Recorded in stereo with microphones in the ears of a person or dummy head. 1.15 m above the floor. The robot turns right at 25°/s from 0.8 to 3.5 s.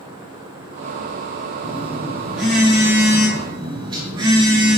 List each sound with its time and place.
1.6 s a phone buzzing: 160° left, 3 m; by 4.8 s 155° right, 3 m